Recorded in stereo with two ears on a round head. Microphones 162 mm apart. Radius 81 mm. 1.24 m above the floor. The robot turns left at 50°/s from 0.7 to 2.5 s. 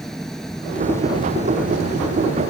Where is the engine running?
Straight behind; by 2.5 s 90° left.